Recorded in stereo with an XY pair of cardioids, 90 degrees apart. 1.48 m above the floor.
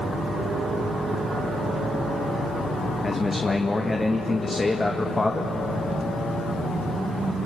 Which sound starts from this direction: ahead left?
A man speaking, at 3.0 s.